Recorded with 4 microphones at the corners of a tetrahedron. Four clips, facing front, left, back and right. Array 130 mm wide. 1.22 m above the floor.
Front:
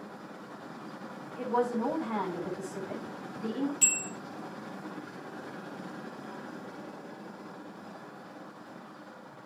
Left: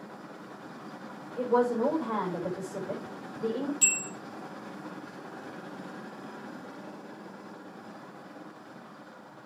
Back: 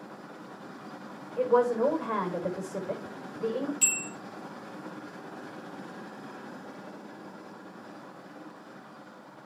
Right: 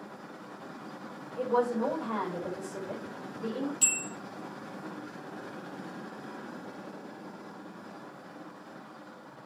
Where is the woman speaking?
155° left, 5.5 m.